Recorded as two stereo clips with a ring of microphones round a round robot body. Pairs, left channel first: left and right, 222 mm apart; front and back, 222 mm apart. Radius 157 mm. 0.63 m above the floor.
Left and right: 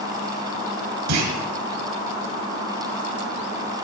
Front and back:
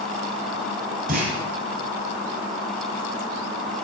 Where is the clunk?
115° right, 2.5 m.